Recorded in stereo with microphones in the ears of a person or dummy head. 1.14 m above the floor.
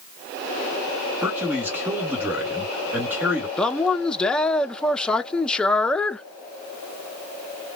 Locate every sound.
1.2 s a man speaking: 10° right (ahead or behind), 2 m
3.6 s a man speaking: 10° left (ahead or behind), 0.5 m